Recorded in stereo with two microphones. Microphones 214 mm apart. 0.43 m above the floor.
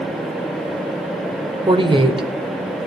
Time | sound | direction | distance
1.7 | a woman speaking | 25° right (ahead or behind) | 1.1 m